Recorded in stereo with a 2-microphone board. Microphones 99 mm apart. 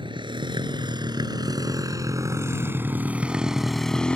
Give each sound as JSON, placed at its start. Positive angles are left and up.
{"t": 0.0, "sound": "a motorcycle", "side_deg": -55}